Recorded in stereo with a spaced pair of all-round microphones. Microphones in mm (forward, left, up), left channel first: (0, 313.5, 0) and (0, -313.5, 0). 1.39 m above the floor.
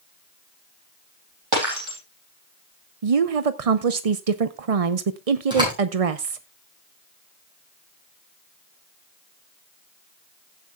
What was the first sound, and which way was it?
Breaking glass, 45° right (ahead or behind).